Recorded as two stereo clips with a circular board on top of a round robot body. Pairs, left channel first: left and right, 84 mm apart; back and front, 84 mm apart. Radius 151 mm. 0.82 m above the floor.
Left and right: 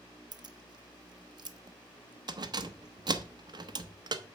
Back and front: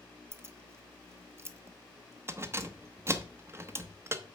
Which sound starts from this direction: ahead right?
Keys jangling, at 0.3 s.